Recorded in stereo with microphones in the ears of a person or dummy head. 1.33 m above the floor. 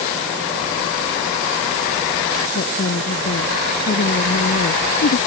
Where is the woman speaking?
50° left (ahead or behind).